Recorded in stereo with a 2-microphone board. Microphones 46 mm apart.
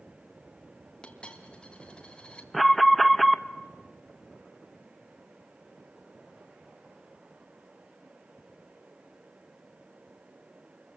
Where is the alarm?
Centre (ahead or behind), 0.9 m.